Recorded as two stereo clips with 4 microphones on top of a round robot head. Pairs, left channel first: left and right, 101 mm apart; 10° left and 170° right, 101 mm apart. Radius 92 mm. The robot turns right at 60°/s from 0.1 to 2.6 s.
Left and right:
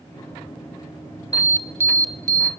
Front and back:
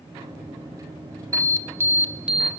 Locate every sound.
1.3 s an alarm: 155° right, 1.7 m; by 2.5 s 85° right, 1.7 m